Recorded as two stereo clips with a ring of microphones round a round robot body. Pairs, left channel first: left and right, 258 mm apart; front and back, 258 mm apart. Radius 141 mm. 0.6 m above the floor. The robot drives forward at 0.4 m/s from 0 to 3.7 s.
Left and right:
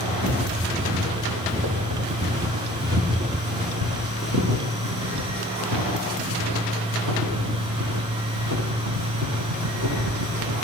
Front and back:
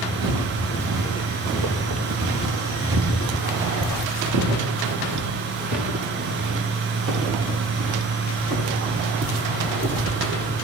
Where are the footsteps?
160° right, 6.5 m; by 10.6 s 130° right, 9.5 m.